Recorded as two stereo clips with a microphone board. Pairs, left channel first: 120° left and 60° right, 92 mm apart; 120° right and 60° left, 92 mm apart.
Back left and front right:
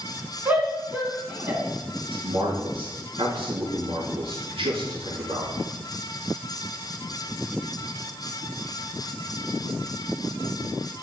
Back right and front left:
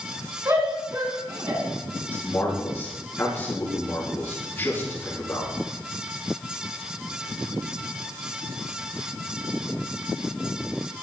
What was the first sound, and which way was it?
A shout, 10° left.